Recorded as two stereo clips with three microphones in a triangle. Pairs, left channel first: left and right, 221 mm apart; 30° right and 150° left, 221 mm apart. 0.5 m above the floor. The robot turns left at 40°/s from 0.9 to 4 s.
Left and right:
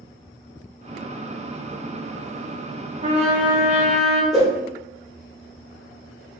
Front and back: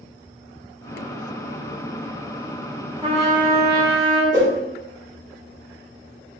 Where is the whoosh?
Straight behind, 1.3 m.